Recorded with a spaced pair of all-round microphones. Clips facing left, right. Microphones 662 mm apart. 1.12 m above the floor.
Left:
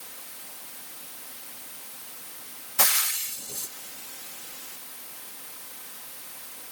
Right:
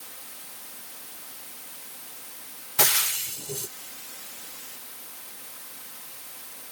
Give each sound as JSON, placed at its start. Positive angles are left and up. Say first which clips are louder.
{"t": 2.8, "sound": "frying", "louder": "right 5 dB", "side_deg": -85}